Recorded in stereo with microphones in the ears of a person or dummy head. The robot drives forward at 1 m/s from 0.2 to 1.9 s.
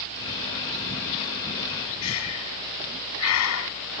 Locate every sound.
2.0 s breathing: 75° left (ahead or behind)